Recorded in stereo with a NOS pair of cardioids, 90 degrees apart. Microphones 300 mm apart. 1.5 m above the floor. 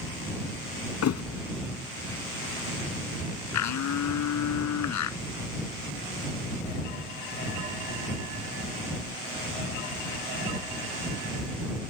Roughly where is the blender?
Left.